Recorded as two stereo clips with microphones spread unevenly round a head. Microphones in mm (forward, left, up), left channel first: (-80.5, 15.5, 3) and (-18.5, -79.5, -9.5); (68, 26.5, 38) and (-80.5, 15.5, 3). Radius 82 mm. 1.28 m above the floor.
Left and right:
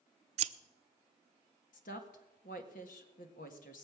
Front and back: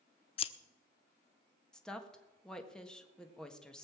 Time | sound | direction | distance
0.4 | scissors | 55° right | 0.6 m
1.7 | a woman speaking | 90° left | 1.6 m